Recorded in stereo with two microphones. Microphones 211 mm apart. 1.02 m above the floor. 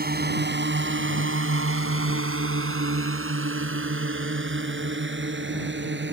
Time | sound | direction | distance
0.0 | a drone | 45° right (ahead or behind) | ?